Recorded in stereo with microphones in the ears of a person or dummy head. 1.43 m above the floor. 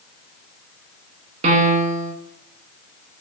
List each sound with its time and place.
1.4 s a piano: 35° right (ahead or behind), 0.6 m